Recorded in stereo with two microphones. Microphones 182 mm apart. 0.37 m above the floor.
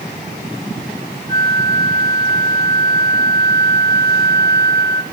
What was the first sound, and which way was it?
A flute, 60° right (ahead or behind).